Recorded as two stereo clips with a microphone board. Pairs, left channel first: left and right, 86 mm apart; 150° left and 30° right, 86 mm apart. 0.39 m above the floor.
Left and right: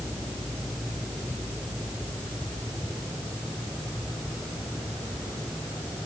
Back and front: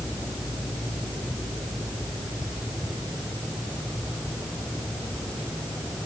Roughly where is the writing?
I don't hear writing.